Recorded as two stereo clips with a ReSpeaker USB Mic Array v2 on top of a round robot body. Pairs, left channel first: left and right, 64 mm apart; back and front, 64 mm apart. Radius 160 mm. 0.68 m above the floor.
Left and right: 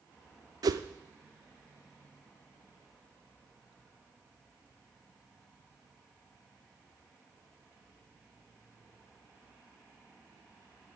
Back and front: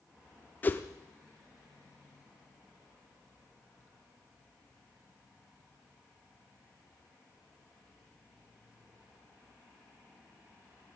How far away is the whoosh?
About 0.5 m.